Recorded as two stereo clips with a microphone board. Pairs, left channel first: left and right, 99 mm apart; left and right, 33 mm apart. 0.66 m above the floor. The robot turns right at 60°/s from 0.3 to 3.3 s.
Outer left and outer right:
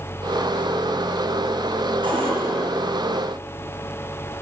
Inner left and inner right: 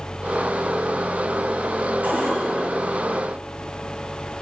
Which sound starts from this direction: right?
A cupboard door, at 2.0 s.